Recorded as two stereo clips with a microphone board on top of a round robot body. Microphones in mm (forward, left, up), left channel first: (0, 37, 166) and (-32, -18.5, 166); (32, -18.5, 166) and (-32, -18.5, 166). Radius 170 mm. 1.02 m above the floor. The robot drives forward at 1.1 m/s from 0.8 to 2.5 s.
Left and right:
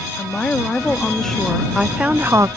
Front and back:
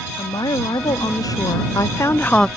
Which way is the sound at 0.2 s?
20° right.